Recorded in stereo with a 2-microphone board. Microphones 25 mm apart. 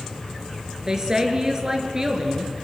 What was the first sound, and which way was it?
A woman speaking, 25° right (ahead or behind).